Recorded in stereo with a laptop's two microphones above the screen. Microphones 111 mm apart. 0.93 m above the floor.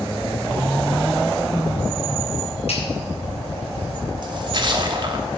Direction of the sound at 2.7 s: 75° left (ahead or behind).